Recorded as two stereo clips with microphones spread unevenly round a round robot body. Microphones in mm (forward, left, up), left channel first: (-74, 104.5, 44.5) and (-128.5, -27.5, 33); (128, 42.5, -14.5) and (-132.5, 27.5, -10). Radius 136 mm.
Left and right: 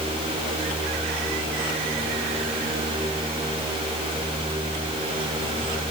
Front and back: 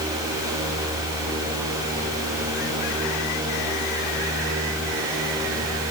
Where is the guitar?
No guitar in this recording.